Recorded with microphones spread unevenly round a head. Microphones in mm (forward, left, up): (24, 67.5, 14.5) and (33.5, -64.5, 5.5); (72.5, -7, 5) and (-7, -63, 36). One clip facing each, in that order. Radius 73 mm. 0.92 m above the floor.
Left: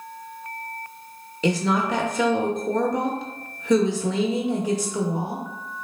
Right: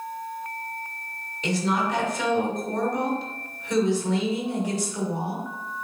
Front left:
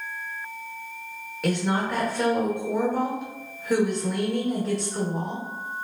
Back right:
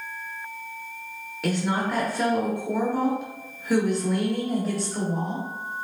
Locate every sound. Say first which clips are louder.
1.4 s a woman speaking: left 3 dB, even; 120° left, 0.9 m